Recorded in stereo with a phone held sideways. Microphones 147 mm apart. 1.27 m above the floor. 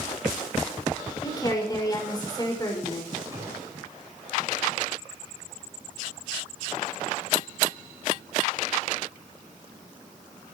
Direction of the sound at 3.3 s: 25° right (ahead or behind).